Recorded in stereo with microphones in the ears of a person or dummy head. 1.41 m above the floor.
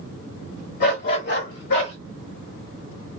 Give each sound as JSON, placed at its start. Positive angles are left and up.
{"t": 0.8, "sound": "a dog barking", "side_deg": 60, "distance_m": 2.0}